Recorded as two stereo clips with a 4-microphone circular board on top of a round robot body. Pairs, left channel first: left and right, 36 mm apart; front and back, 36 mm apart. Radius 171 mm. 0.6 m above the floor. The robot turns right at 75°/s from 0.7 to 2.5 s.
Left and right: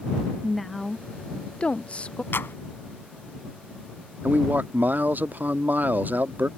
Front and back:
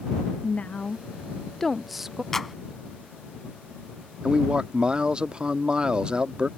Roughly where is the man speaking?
Behind right.